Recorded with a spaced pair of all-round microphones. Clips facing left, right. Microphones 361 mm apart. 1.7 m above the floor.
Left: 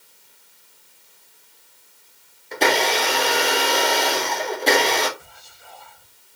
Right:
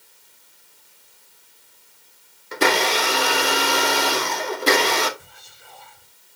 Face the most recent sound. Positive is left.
turn(degrees=-30)  # may be behind; listen again after turning